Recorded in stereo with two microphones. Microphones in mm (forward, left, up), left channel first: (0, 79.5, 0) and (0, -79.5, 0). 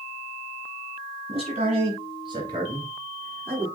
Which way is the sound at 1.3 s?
40° right (ahead or behind).